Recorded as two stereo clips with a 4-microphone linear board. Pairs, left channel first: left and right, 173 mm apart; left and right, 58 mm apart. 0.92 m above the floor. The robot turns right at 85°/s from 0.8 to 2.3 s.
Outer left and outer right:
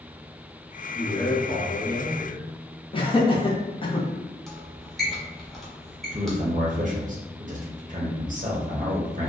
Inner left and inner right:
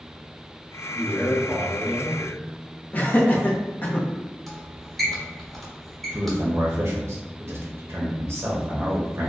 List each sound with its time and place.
0.9 s a man speaking: 5° left, 1.0 m; by 2.4 s 120° left, 1.0 m
2.9 s laughter: 30° left (ahead or behind), 0.6 m
4.5 s a squeak: centre (ahead or behind), 0.8 m
6.1 s a man speaking: 50° right (ahead or behind), 0.6 m